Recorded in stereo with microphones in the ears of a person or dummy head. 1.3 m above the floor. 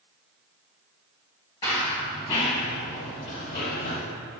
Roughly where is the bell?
I don't hear a bell.